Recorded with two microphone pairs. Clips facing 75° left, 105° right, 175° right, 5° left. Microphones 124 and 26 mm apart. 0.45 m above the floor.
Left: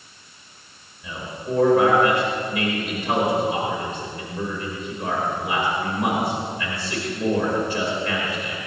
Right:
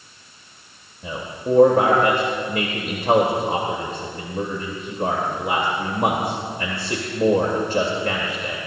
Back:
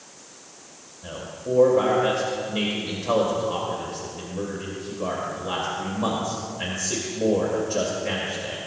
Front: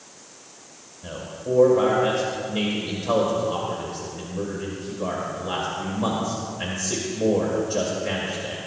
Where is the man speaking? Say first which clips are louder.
Right 5 dB, front 1 dB; 85° right, 1.7 m.